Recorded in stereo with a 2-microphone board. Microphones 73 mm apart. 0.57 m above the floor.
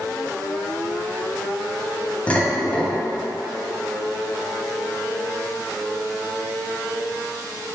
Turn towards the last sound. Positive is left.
turn(degrees=15)  # may be behind; listen again after turning